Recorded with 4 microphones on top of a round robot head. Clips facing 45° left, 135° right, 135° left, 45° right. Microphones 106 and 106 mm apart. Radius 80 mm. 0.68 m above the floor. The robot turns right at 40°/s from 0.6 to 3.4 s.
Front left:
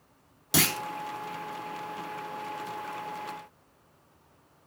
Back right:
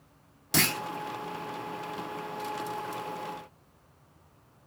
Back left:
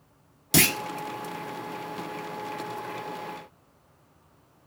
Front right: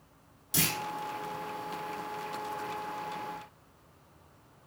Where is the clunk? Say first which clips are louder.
Front left 1 dB, back left 9 dB; 130° left, 1.0 m; by 0.8 s 135° left, 1.0 m.